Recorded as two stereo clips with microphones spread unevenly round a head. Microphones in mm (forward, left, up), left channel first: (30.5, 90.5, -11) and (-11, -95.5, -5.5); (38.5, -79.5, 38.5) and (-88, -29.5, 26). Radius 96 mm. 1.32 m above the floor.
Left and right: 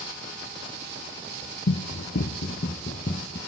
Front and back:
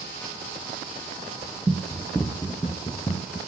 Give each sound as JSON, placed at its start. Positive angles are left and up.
{"t": 1.7, "sound": "running footsteps", "azimuth_deg": 75, "distance_m": 2.0}